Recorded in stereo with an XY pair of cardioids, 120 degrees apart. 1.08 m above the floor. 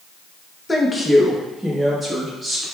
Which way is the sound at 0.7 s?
15° left.